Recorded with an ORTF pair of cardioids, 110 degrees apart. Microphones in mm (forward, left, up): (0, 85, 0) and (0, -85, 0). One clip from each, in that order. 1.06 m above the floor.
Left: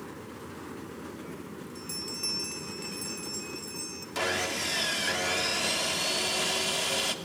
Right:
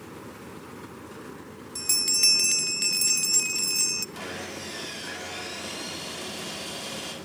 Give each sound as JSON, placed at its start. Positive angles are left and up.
{"t": 1.8, "sound": "a bell", "azimuth_deg": -65, "distance_m": 0.6}
{"t": 4.2, "sound": "sawing", "azimuth_deg": 50, "distance_m": 3.0}